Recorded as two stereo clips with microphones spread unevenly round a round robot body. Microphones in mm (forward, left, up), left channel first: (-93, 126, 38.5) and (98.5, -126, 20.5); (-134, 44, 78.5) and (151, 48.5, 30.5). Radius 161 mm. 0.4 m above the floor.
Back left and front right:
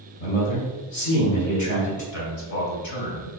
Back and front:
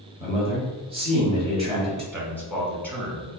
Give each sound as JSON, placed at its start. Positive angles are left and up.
{"t": 0.2, "sound": "a man speaking", "azimuth_deg": 80, "distance_m": 1.6}
{"t": 2.1, "sound": "a man speaking", "azimuth_deg": 90, "distance_m": 2.0}